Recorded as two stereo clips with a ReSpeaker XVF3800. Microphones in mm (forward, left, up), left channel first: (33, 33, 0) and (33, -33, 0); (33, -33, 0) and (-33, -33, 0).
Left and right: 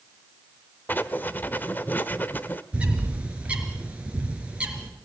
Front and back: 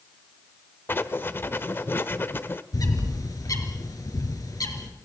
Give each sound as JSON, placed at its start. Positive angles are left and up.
{"t": 0.9, "sound": "writing", "azimuth_deg": 40, "distance_m": 1.0}
{"t": 2.7, "sound": "a bird", "azimuth_deg": -20, "distance_m": 3.5}